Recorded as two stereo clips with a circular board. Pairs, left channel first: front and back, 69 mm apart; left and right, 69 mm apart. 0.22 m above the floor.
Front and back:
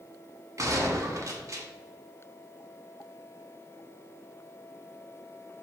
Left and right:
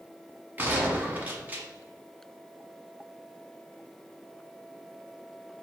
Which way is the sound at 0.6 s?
150° right.